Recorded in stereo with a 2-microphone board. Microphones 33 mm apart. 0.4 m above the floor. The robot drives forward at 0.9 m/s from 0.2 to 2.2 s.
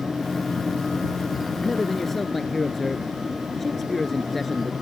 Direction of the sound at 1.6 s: 5° left (ahead or behind).